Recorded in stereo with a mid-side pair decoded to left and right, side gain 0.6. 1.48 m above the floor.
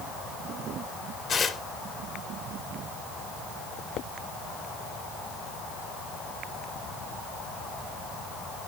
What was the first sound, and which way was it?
Tearing paper, 45° left.